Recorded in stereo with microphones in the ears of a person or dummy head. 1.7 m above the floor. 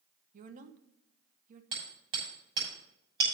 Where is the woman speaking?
45° right (ahead or behind), 1.1 m.